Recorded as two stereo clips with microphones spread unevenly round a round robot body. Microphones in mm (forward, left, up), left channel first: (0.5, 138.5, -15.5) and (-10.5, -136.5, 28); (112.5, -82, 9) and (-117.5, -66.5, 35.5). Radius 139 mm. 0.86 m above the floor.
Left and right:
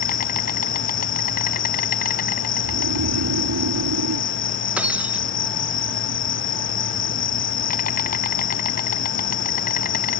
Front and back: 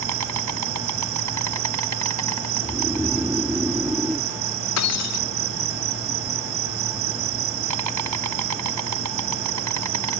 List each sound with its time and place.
0.0 s an insect: 150° left
2.6 s snoring: 100° right
4.8 s breaking glass: 5° right